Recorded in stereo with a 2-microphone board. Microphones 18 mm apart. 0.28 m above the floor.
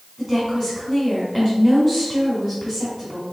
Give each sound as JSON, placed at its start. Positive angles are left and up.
{"t": 0.2, "sound": "a woman speaking", "side_deg": 30, "distance_m": 1.8}